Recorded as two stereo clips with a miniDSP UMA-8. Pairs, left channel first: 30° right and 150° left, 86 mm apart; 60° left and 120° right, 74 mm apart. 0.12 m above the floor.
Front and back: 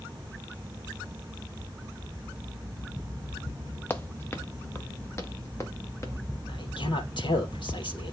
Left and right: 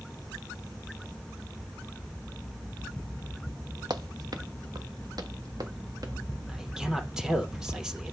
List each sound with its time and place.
3.9 s running footsteps: 95° right, 1.0 m; by 6.1 s 85° right, 3 m
6.5 s a man speaking: 40° right, 3 m